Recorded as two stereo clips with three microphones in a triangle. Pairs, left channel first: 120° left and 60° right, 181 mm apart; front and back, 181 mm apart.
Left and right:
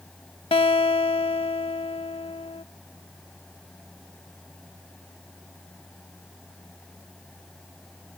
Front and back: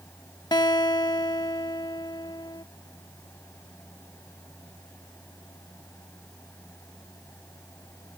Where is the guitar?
65° left.